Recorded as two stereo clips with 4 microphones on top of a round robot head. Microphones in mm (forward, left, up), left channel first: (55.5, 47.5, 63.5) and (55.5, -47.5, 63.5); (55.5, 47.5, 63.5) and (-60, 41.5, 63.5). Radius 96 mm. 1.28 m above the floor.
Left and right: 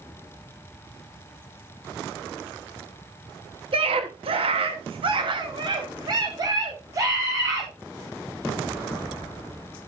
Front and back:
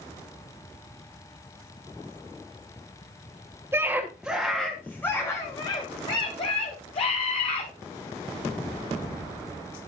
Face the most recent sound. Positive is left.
turn(degrees=-35)